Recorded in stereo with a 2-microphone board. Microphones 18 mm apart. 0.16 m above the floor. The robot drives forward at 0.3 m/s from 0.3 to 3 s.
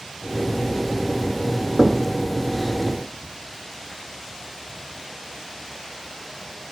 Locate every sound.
1.8 s knocking: 20° left (ahead or behind), 1.7 m